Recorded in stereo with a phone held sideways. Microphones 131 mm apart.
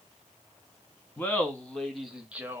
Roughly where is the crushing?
No crushing in this recording.